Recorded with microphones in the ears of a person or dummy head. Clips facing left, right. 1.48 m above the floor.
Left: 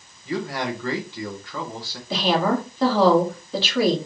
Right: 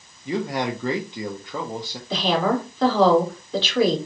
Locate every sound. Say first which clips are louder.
0.2 s a man speaking: right 2 dB; 15° right (ahead or behind), 0.8 m
2.1 s a woman speaking: even; 10° left (ahead or behind), 2 m